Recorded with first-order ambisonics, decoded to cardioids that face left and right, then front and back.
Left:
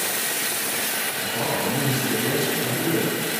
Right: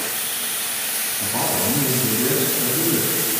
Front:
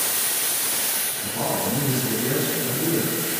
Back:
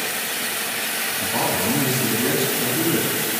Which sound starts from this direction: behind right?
A man speaking, at 1.2 s.